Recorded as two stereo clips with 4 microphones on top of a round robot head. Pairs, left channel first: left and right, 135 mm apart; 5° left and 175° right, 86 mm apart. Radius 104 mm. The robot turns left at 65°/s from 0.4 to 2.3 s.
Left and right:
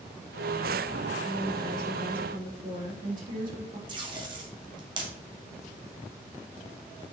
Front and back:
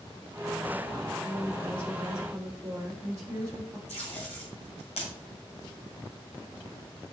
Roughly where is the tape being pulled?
Ahead right.